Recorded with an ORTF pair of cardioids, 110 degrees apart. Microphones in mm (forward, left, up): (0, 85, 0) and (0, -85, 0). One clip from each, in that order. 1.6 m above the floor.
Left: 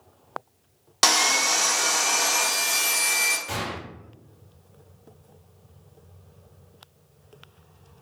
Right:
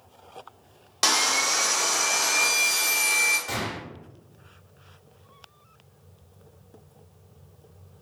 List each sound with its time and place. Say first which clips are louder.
1.0 s sawing: left 2 dB; 20° left, 0.5 m
3.5 s a gunshot: even; 15° right, 1.4 m